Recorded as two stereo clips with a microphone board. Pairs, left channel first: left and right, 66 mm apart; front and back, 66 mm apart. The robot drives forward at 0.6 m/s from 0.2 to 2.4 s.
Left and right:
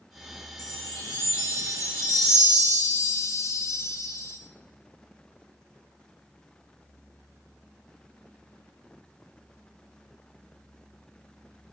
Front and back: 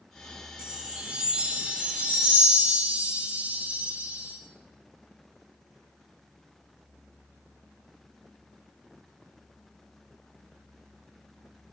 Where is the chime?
100° left, 3.5 m; by 4.4 s 120° left, 4 m.